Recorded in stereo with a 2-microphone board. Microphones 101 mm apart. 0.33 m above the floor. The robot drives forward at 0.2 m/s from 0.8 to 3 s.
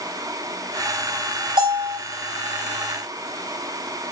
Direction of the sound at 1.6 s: 55° right (ahead or behind).